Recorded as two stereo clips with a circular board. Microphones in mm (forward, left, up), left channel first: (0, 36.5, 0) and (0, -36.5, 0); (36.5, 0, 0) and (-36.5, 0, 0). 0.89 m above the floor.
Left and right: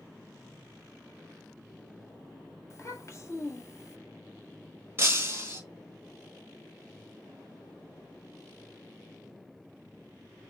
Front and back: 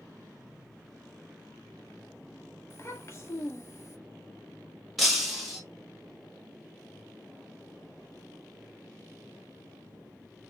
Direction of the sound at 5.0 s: 90° right.